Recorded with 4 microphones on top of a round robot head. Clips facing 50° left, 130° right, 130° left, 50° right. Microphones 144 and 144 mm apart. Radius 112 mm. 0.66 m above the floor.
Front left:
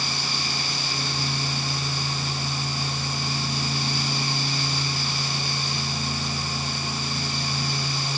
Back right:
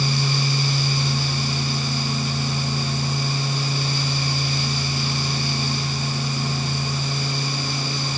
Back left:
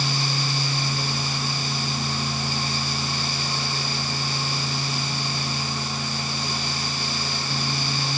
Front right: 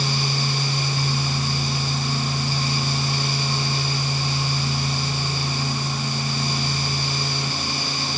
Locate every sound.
Only background noise.